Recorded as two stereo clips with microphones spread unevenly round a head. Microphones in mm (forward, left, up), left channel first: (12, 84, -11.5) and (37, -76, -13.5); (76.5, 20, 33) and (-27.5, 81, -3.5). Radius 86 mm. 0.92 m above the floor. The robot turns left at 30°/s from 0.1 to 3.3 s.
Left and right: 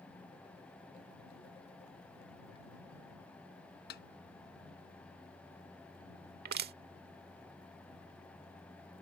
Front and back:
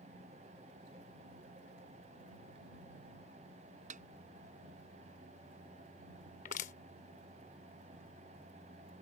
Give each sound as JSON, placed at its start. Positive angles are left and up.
{"t": 3.9, "sound": "a snare drum", "azimuth_deg": 135}
{"t": 6.5, "sound": "crushing", "azimuth_deg": -60}